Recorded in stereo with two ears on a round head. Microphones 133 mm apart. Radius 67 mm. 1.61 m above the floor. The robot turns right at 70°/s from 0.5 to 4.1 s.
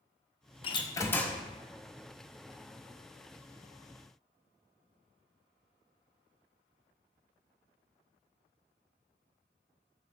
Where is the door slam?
125° left, 0.7 m; by 1.4 s straight behind, 0.7 m.